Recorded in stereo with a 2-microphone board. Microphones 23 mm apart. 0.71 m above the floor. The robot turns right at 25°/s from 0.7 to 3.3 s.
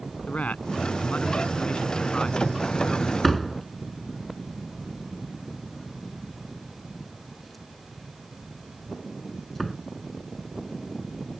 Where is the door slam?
5° left (ahead or behind); by 9.8 s centre (ahead or behind).